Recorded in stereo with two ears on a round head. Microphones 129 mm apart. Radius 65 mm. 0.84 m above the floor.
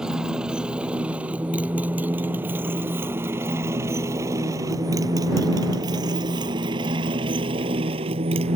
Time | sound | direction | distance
0.0 | a motorcycle | 5° right (ahead or behind) | ?